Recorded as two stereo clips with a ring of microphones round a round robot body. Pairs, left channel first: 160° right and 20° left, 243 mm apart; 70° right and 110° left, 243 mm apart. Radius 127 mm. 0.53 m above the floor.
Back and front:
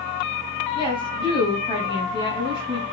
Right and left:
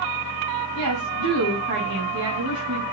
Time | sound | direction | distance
0.8 | a woman speaking | 95° left | 4.5 m